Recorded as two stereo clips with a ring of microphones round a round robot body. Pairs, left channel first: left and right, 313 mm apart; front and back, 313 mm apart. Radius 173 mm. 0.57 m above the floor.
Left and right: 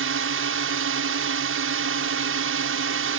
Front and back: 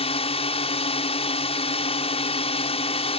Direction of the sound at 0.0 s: 65° right.